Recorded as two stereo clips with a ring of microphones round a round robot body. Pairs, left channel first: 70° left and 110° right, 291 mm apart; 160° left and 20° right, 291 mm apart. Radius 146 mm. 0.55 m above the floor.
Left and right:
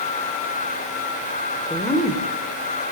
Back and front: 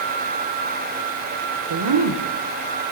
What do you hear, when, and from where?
1.7 s a woman speaking: 15° right, 2 m